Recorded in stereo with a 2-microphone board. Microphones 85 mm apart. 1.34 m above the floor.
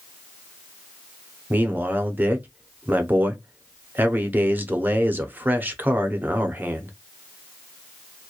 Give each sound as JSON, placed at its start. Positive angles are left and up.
{"t": 1.5, "sound": "a man speaking", "side_deg": -20, "distance_m": 0.6}